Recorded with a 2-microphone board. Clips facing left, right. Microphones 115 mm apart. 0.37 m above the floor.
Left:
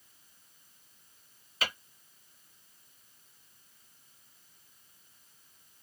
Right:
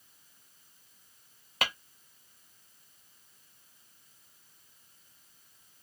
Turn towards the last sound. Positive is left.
turn(degrees=-70)  # may be behind; listen again after turning